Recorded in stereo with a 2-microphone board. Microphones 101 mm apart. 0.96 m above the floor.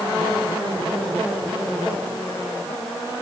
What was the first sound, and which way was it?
Only background noise.